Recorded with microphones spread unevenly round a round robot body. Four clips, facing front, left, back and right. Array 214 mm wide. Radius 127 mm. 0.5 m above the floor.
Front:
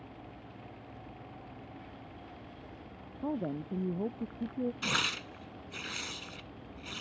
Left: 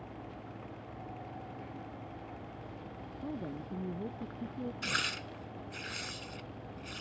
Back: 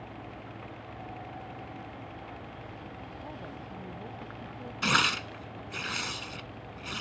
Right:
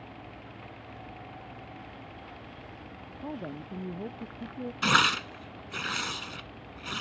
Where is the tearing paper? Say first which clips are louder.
Right 12 dB, back 7 dB; 120° right.